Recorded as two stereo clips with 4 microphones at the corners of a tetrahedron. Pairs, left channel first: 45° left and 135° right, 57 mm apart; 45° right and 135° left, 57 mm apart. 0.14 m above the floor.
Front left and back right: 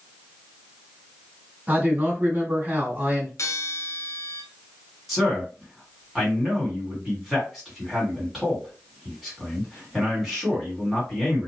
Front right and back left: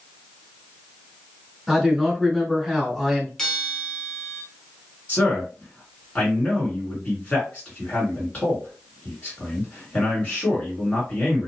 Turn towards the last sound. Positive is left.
turn(degrees=-40)